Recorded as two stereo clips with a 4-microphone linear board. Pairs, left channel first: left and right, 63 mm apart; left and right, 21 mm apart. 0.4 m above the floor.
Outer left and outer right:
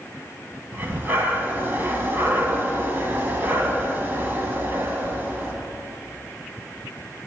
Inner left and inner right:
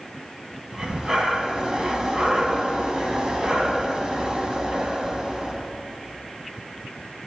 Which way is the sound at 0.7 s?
30° right (ahead or behind).